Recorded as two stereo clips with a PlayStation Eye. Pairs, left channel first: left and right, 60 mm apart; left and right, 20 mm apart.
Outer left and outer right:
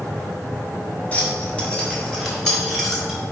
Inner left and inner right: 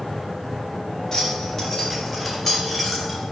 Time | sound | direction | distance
1.1 | keys jangling | 25° left (ahead or behind) | 1.6 m